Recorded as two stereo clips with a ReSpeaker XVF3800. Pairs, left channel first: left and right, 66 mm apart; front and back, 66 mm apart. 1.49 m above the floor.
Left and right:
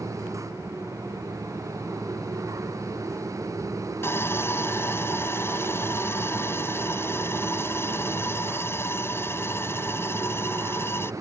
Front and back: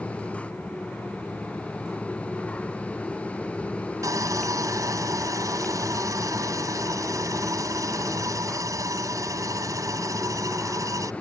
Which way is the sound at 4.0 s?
145° left.